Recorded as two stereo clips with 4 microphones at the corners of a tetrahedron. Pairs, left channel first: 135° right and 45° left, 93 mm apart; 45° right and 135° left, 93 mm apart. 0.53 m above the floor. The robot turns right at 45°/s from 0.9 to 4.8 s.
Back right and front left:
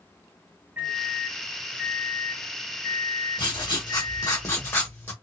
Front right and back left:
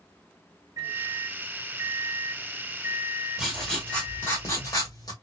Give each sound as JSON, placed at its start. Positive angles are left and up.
{"t": 0.8, "sound": "a microwave", "azimuth_deg": 120, "distance_m": 1.3}
{"t": 3.4, "sound": "writing", "azimuth_deg": -135, "distance_m": 1.4}